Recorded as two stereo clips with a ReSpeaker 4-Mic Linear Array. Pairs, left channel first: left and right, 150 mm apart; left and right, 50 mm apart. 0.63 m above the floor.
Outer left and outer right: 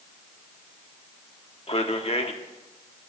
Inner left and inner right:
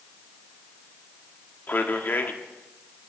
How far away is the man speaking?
About 1.5 m.